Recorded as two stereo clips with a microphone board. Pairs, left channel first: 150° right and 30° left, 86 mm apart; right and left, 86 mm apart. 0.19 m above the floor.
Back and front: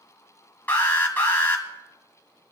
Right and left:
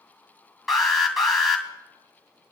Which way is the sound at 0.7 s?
Straight behind.